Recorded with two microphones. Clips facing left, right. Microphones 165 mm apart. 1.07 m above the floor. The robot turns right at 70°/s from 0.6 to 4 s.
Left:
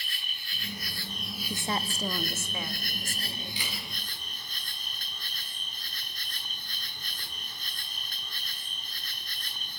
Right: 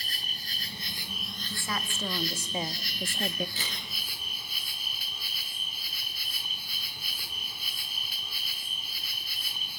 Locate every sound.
0.0 s an insect: 50° right, 1.0 m; by 9.8 s 170° right, 1.0 m
1.5 s a woman speaking: 135° left, 1.3 m; by 3.5 s 90° right, 1.3 m
3.6 s a camera shutter: 45° right (ahead or behind), 9 m; by 3.8 s 30° right (ahead or behind), 9 m